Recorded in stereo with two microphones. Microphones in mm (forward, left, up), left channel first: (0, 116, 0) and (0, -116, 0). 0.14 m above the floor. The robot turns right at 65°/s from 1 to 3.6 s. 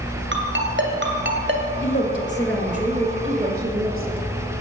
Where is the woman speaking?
125° left, 1.9 m; by 4.2 s 115° right, 1.9 m.